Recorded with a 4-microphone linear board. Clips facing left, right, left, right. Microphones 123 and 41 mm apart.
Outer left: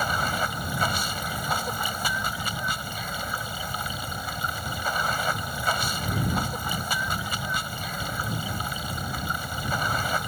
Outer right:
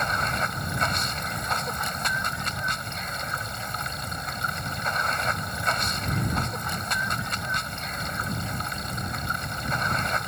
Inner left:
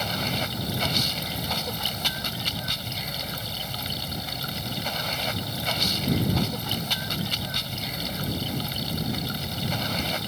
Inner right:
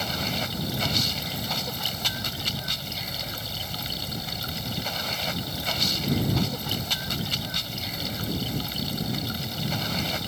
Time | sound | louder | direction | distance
0.0 | running water | outer left 1 dB, inner left 1 dB | 5° left (ahead or behind) | ?